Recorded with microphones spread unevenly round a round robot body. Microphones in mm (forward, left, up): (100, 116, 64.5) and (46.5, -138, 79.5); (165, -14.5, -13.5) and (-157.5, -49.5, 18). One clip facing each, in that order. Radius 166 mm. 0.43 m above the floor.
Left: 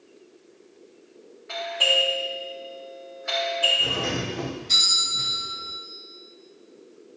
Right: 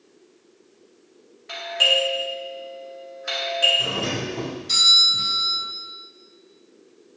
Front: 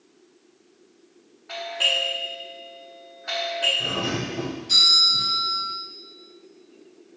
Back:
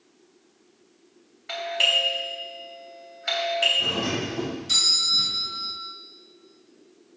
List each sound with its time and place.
1.5 s a doorbell: 145° right, 3.5 m
3.8 s a doorbell: 110° right, 4 m